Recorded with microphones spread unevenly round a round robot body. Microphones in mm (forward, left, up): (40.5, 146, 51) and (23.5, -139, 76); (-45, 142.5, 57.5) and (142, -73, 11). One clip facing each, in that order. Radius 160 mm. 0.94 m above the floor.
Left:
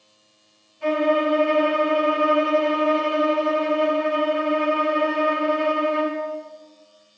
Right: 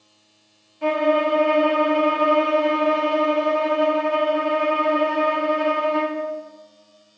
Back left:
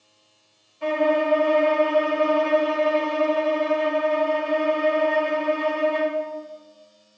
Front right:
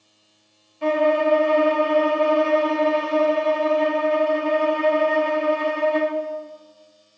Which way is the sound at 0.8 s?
65° right.